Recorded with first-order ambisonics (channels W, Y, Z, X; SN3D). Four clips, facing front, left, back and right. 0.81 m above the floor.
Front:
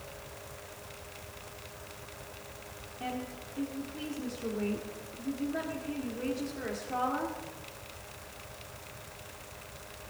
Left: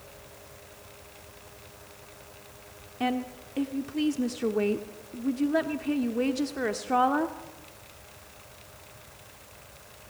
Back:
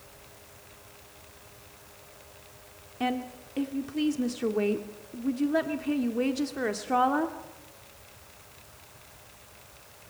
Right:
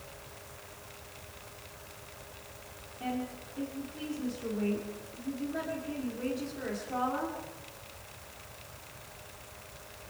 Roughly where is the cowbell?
No cowbell in this recording.